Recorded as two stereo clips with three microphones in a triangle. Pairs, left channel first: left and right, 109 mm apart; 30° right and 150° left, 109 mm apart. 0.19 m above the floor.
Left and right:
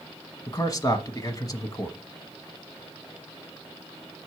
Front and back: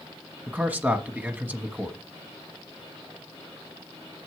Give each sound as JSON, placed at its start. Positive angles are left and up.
{"t": 0.5, "sound": "a man speaking", "azimuth_deg": 90, "distance_m": 1.2}